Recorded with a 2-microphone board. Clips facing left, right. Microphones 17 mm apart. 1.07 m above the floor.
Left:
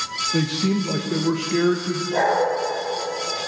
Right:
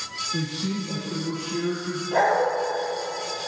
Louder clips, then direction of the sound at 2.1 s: Even; 25° right (ahead or behind).